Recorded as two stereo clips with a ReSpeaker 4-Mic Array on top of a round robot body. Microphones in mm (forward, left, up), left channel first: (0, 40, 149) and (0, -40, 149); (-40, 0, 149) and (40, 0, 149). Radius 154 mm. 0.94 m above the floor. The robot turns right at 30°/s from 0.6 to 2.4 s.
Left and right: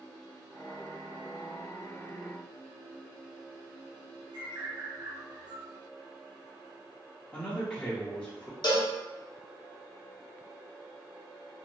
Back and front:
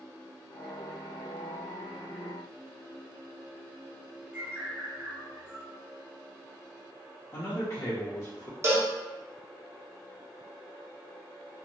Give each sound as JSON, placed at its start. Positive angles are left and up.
{"t": 4.3, "sound": "a bird", "azimuth_deg": -65, "distance_m": 1.5}
{"t": 7.3, "sound": "a man speaking", "azimuth_deg": 155, "distance_m": 1.0}
{"t": 8.6, "sound": "a cowbell", "azimuth_deg": 55, "distance_m": 0.7}